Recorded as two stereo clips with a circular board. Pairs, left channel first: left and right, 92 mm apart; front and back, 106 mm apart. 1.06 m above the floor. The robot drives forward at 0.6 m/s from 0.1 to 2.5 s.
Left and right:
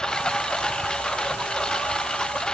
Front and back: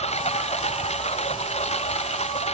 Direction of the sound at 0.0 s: 5° left.